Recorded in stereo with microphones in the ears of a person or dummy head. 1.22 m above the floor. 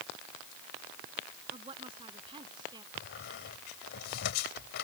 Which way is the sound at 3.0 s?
75° left (ahead or behind).